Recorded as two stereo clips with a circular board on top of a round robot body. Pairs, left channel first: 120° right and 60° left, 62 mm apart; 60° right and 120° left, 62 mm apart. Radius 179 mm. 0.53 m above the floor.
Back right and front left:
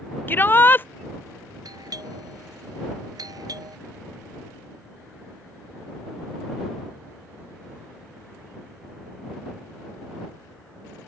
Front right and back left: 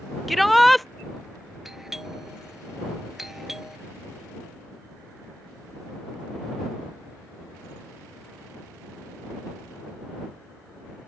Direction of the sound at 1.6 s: 35° left.